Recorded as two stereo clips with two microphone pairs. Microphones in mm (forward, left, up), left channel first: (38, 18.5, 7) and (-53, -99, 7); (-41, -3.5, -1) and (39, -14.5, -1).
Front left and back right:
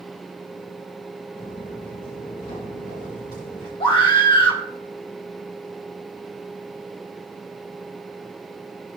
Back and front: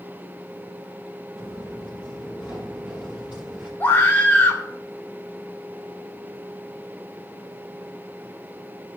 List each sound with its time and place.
1.4 s footsteps: 55° left, 6 m; by 3.7 s 70° left, 7 m
3.8 s a scream: 110° left, 1.9 m